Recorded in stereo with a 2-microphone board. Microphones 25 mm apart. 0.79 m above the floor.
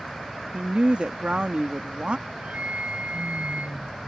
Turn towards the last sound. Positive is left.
turn(degrees=-75)  # may be behind; listen again after turning